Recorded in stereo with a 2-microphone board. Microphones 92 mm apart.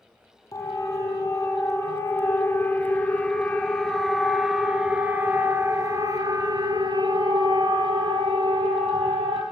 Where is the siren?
40° left (ahead or behind), 4.5 m; by 9.4 s 70° right (ahead or behind), 4.5 m.